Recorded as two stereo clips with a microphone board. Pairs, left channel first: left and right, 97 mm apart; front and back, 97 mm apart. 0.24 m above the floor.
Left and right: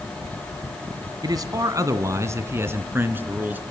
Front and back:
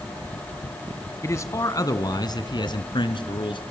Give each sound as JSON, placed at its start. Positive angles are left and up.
{"t": 1.2, "sound": "a man speaking", "azimuth_deg": -55, "distance_m": 1.7}